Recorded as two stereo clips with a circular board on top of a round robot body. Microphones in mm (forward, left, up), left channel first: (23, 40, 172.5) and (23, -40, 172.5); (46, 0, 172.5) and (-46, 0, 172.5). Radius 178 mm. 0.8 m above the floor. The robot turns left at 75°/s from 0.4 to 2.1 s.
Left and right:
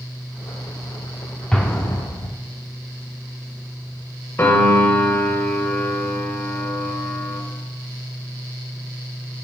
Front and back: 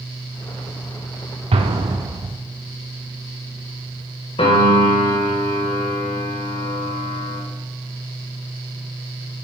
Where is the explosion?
170° left, 0.7 m; by 2.3 s 130° left, 0.7 m.